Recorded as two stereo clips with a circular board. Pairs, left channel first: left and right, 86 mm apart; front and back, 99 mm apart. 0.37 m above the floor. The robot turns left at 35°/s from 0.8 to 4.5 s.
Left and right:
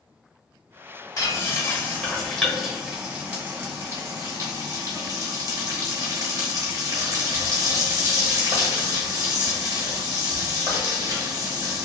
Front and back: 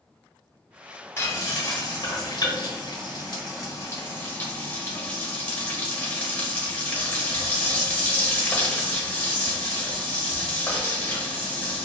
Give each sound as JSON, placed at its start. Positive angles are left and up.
{"t": 1.2, "sound": "frying", "azimuth_deg": 55, "distance_m": 1.0}